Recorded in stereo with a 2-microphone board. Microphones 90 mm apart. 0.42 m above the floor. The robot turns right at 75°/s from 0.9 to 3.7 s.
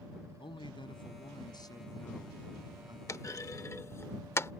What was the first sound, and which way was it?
A man speaking, 75° left.